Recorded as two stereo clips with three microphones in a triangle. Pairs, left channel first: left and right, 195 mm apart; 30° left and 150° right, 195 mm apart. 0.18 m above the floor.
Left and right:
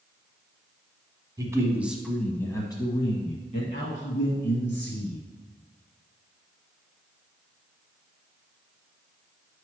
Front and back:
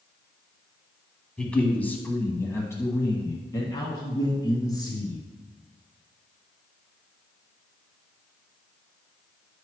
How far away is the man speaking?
About 1.2 m.